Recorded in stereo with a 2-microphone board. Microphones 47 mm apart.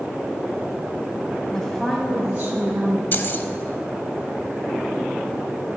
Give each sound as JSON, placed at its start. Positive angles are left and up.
{"t": 1.5, "sound": "a woman speaking", "side_deg": 20, "distance_m": 1.8}
{"t": 3.1, "sound": "keys jangling", "side_deg": 45, "distance_m": 0.9}